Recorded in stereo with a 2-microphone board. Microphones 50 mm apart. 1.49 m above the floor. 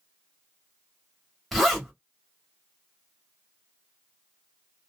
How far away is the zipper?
About 1.9 m.